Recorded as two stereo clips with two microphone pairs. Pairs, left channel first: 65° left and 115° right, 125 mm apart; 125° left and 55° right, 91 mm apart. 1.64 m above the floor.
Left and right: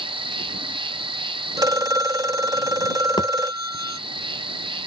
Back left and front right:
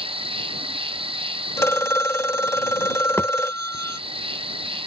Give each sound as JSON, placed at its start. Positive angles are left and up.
{"t": 0.0, "sound": "an insect", "azimuth_deg": -70}
{"t": 1.6, "sound": "a phone ringing", "azimuth_deg": -175}
{"t": 3.2, "sound": "a thud", "azimuth_deg": 75}